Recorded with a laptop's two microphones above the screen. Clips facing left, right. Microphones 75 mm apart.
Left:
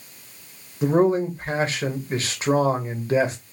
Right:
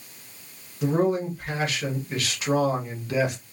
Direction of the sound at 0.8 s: 30° left (ahead or behind).